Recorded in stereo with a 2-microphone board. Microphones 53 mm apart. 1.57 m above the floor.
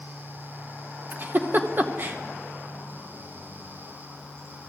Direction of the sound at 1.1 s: 35° right (ahead or behind).